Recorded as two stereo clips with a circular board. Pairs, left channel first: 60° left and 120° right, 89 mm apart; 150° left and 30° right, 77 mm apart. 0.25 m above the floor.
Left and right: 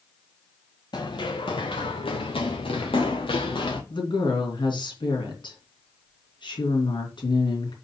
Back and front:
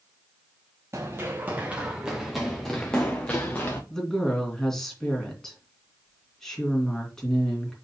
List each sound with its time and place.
0.9 s running footsteps: 25° left, 1.5 m; by 3.8 s 80° left, 2 m
3.9 s a woman speaking: 65° left, 3 m